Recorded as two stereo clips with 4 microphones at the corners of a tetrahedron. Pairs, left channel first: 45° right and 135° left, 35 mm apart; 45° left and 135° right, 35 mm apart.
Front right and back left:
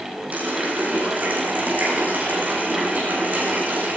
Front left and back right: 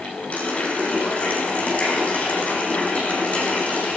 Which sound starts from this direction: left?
A running tap, at 0.3 s.